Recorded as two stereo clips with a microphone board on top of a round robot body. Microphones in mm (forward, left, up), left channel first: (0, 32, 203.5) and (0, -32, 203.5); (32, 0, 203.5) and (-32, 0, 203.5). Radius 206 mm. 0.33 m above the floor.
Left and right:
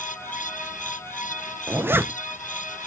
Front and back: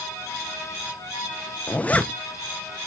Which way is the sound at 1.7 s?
55° right.